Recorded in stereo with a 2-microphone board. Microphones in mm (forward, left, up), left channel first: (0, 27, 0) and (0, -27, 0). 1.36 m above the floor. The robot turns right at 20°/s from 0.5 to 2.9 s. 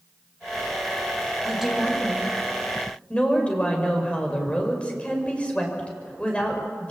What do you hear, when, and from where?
1.4 s a woman speaking: 10° right (ahead or behind), 6 m; by 6.9 s 20° left (ahead or behind), 6 m